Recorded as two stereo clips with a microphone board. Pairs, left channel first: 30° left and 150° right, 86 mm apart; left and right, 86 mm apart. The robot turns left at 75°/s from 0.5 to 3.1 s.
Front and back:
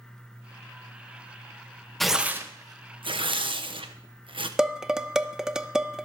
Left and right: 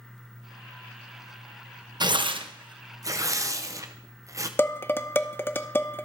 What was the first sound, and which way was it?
Tearing paper, 55° right.